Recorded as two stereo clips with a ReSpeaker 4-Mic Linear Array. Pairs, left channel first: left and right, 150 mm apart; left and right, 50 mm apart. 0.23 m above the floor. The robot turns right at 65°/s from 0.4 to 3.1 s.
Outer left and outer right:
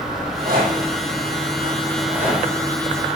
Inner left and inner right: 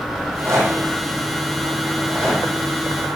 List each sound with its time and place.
0.1 s a rattle: 75° right (ahead or behind), 3.5 m; by 2.4 s 30° left (ahead or behind), 3.5 m